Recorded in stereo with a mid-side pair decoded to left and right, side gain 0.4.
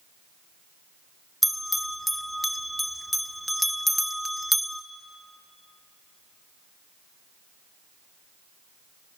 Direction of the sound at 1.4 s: Straight ahead.